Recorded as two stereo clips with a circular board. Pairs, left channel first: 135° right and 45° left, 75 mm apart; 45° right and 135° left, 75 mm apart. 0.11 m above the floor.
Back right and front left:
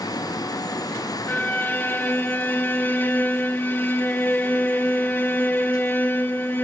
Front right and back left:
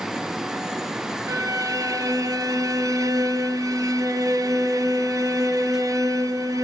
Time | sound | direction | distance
1.3 | a violin | 165° left | 1.4 m